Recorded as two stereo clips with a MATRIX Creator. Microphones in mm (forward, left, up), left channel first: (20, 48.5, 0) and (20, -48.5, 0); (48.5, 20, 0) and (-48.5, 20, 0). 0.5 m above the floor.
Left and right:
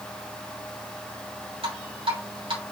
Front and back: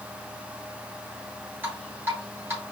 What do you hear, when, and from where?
1.6 s dripping: 110° right, 3 m